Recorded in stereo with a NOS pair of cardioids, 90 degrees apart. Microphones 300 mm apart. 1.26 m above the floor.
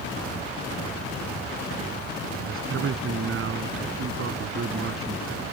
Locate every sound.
2.4 s a man speaking: 45° right